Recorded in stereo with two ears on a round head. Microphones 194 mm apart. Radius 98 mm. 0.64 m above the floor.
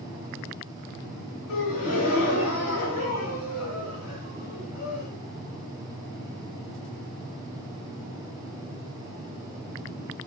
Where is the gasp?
75° left (ahead or behind), 1.1 m.